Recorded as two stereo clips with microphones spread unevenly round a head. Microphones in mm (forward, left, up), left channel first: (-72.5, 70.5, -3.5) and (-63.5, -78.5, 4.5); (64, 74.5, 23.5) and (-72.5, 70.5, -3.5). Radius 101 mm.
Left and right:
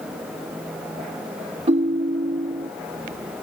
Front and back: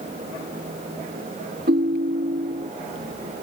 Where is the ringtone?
130° right.